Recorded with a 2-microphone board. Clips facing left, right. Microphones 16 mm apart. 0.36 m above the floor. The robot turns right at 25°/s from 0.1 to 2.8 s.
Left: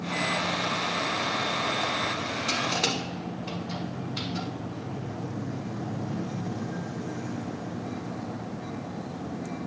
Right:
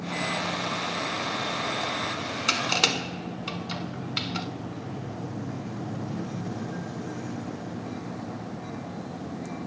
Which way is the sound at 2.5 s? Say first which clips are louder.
Right 4 dB; 80° right.